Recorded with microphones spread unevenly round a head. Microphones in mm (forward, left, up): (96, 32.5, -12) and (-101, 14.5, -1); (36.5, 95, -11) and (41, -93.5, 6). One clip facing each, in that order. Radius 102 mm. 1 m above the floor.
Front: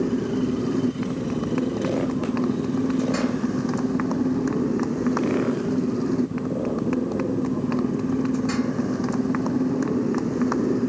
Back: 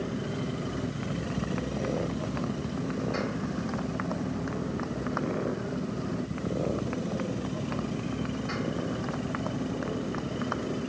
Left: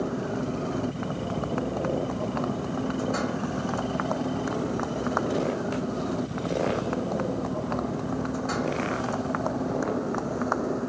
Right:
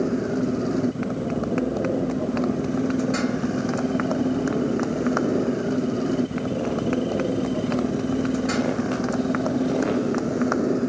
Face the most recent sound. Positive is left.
turn(degrees=-30)